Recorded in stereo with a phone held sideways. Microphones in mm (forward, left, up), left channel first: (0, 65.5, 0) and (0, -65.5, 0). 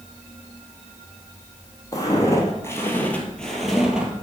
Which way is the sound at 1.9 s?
30° left (ahead or behind).